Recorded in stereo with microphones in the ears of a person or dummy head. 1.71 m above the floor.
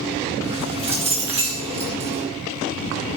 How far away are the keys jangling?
About 2.5 m.